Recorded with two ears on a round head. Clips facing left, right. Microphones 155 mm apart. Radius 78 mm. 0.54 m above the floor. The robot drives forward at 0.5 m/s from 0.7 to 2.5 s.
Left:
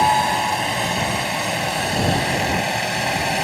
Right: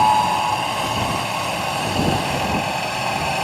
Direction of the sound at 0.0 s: 15° left (ahead or behind).